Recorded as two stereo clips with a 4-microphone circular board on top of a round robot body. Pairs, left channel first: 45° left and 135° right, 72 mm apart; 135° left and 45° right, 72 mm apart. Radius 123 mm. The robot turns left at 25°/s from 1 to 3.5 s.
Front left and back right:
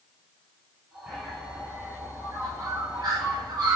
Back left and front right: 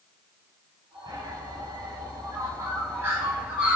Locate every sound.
1.1 s a bird: 55° right, 7 m; by 3.8 s 120° right, 7 m